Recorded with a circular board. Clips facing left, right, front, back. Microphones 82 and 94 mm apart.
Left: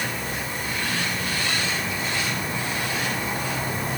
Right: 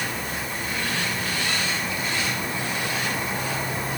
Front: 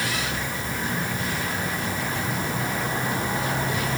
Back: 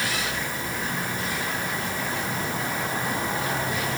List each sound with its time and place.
Only background noise.